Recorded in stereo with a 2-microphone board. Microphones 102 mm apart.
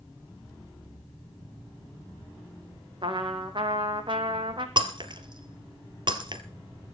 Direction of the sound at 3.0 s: 55° right (ahead or behind).